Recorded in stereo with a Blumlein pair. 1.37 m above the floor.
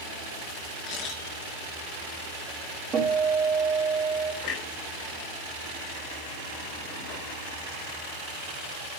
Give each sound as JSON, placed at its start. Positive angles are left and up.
{"t": 0.9, "sound": "a camera shutter", "azimuth_deg": 35, "distance_m": 4.0}
{"t": 2.9, "sound": "a guitar", "azimuth_deg": -20, "distance_m": 5.5}
{"t": 4.4, "sound": "a clunk", "azimuth_deg": 40, "distance_m": 4.0}